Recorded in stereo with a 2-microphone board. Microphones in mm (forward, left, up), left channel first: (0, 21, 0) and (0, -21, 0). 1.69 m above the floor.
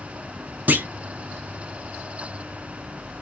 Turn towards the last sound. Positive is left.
turn(degrees=-45)  # may be behind; listen again after turning